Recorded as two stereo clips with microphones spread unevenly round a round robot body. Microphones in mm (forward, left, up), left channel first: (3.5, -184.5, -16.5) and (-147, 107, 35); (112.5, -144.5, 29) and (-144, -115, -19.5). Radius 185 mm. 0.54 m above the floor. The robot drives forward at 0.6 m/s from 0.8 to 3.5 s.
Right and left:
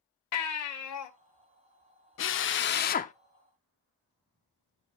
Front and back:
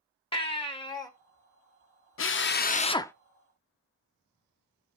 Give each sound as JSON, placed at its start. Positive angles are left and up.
{"t": 0.3, "sound": "a baby crying", "azimuth_deg": -80, "distance_m": 1.6}
{"t": 2.2, "sound": "a drill", "azimuth_deg": -35, "distance_m": 0.8}